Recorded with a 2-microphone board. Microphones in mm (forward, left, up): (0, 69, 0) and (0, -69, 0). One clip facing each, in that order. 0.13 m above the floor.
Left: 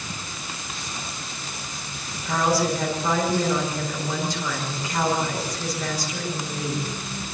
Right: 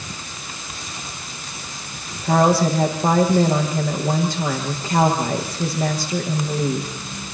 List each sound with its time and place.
2.2 s a woman speaking: 55° right (ahead or behind), 7 m